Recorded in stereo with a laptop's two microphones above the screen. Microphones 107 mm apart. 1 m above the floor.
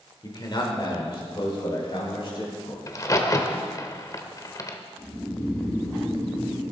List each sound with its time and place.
0.2 s a man speaking: 45° left (ahead or behind), 3.5 m; by 2.8 s 50° left (ahead or behind), 6.5 m
2.9 s a crack: 35° left (ahead or behind), 1.3 m
5.0 s snoring: 15° left (ahead or behind), 4 m